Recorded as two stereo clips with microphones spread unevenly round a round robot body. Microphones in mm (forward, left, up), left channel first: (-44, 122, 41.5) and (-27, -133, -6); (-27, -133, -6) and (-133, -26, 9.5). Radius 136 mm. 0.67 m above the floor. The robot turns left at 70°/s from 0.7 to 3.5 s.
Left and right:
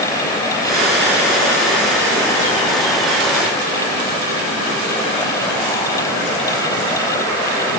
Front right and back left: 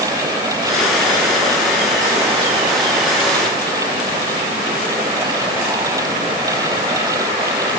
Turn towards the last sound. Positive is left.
No sound to turn to.